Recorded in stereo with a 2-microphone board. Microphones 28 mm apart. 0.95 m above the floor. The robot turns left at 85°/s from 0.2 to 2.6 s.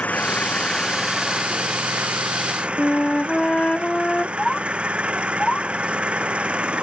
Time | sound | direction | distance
0.0 | an engine running | 75° left | ?
2.8 | a flute | 35° left (ahead or behind) | ?
4.4 | a bird | 30° left (ahead or behind) | ?